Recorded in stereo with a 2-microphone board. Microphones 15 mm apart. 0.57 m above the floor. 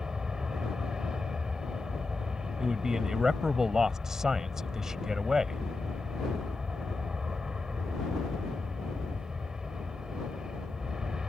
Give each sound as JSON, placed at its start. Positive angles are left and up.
{"t": 0.0, "sound": "an aircraft", "side_deg": -60}
{"t": 2.6, "sound": "a man speaking", "side_deg": -40}